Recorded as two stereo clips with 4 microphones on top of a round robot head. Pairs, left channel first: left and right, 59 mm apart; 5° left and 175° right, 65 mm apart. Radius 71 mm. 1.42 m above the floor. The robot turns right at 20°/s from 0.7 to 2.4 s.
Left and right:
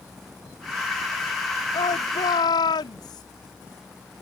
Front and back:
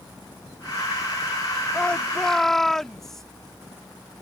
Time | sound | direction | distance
1.7 | a shout | 80° left | ?